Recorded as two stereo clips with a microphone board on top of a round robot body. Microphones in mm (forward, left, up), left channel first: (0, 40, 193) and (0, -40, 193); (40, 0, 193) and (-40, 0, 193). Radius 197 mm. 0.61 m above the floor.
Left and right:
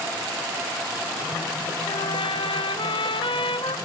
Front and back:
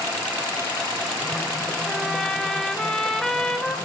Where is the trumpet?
85° left, 1.8 m.